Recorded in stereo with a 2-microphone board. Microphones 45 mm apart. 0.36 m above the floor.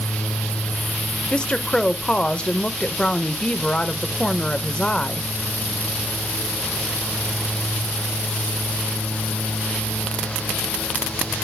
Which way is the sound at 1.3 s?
20° left (ahead or behind).